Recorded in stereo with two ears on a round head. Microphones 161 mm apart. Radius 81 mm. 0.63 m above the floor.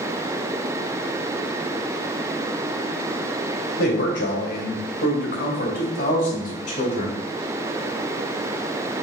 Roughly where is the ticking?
I don't hear ticking.